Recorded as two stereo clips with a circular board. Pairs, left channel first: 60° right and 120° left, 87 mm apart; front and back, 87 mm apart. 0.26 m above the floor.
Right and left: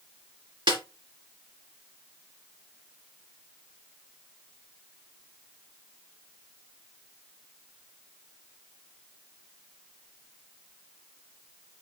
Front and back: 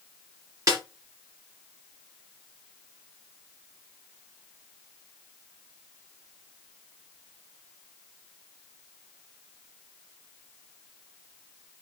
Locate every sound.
0.7 s a snare drum: 135° left, 5 m